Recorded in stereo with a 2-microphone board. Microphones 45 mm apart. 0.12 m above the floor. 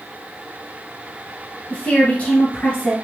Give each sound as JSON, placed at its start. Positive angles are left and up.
{"t": 1.7, "sound": "a woman speaking", "side_deg": 30, "distance_m": 1.6}